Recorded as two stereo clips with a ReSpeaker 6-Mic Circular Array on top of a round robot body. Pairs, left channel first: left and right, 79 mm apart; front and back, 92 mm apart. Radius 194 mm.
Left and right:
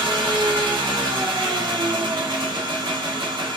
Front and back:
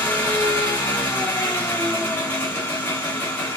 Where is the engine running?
70° right, 1.0 m.